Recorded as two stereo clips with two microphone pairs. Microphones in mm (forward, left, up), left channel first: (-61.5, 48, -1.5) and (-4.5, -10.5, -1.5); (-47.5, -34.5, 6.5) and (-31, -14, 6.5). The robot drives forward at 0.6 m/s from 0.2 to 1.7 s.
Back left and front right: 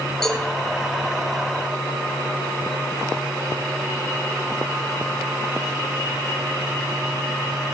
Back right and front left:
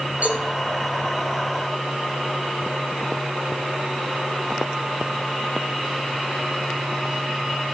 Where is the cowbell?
45° left, 7 m.